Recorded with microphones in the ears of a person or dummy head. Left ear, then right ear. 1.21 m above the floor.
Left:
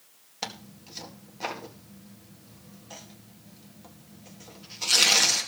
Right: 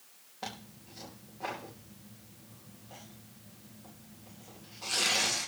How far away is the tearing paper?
About 2.5 m.